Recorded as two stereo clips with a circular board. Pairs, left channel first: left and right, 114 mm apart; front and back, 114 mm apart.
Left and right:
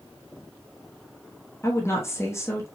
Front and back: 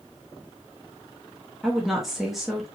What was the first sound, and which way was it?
A woman speaking, 95° left.